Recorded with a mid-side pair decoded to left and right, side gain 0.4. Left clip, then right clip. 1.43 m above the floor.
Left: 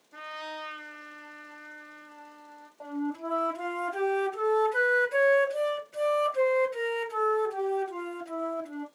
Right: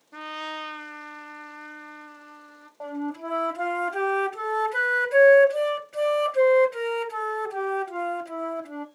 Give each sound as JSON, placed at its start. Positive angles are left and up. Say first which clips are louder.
{"t": 0.1, "sound": "a trumpet", "louder": "right 5 dB", "azimuth_deg": -50, "distance_m": 0.8}
{"t": 2.8, "sound": "a flute", "louder": "right 2 dB", "azimuth_deg": -45, "distance_m": 1.5}